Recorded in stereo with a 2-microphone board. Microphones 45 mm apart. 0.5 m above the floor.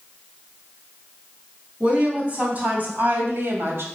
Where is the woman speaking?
25° right (ahead or behind), 3.5 m; by 3.9 s 70° right (ahead or behind), 2 m.